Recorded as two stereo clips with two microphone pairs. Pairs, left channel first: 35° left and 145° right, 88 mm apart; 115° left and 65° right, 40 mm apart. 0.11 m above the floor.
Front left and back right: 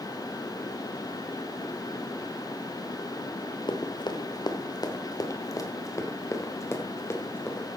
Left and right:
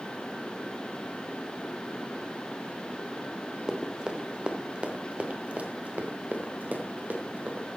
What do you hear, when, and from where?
3.7 s running footsteps: 10° left, 2 m; by 7.7 s 25° right, 3.5 m